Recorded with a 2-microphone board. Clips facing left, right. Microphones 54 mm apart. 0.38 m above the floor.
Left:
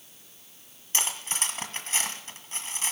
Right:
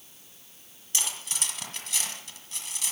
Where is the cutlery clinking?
35° left (ahead or behind), 1.7 m.